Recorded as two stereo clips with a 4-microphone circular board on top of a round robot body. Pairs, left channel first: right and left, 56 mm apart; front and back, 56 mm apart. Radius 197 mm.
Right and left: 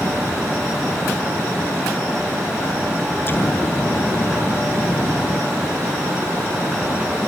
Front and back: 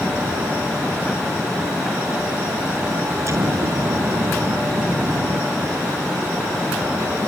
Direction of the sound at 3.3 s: 145° right.